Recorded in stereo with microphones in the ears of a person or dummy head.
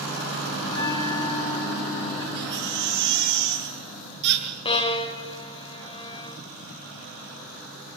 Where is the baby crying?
50° right (ahead or behind), 6.5 m.